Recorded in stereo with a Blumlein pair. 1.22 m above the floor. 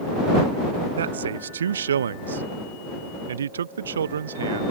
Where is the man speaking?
65° right.